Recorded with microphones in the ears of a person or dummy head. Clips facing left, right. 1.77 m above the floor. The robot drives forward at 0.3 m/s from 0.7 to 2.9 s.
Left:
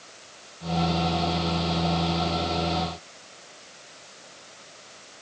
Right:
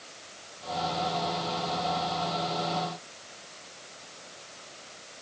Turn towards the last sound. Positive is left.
No sound to turn to.